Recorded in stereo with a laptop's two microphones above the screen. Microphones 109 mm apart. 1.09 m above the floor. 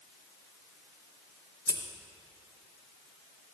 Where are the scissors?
25° left (ahead or behind), 0.6 m.